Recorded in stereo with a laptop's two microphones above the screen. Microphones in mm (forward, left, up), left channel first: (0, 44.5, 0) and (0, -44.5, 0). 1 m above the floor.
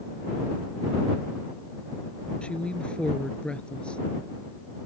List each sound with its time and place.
2.4 s a woman speaking: 10° left (ahead or behind)